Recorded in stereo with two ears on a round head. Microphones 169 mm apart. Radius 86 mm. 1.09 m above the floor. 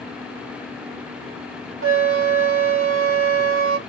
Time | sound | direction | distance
1.8 | a flute | 75° right (ahead or behind) | 1.2 m